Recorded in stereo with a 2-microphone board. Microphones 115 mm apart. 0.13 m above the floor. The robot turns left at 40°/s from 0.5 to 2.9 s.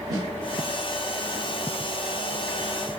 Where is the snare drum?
35° right (ahead or behind), 1.5 m.